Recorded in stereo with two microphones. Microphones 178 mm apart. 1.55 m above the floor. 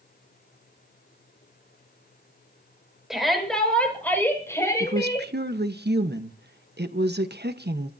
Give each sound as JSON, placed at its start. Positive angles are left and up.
{"t": 3.1, "sound": "a shout", "side_deg": 0, "distance_m": 7.0}
{"t": 4.8, "sound": "a woman speaking", "side_deg": -80, "distance_m": 1.3}